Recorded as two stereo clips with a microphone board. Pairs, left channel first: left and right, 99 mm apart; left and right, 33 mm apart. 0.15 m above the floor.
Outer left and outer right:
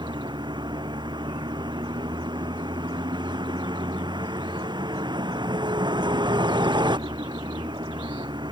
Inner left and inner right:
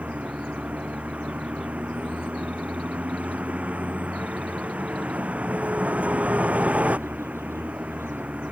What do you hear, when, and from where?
0.0 s a vehicle: 45° right (ahead or behind)